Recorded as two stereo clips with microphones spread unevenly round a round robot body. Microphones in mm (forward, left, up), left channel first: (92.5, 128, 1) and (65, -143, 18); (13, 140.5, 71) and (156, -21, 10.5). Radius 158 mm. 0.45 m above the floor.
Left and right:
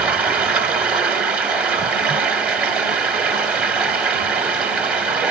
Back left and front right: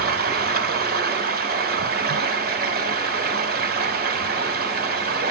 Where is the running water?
10° right, 1.6 m.